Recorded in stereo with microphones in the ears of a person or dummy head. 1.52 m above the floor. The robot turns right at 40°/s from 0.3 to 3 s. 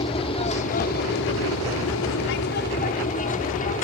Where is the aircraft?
30° left (ahead or behind); by 3.9 s 40° left (ahead or behind).